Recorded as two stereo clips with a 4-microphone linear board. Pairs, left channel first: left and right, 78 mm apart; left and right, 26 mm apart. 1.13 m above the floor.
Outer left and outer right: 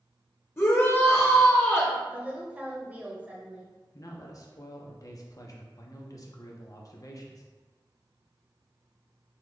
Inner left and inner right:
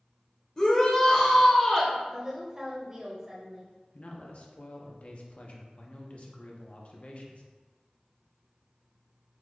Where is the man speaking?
45° left (ahead or behind), 0.7 m.